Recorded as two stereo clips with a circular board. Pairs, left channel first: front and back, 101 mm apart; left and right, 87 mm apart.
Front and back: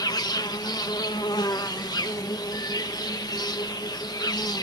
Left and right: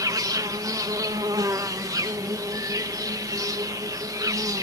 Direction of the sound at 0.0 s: 40° right.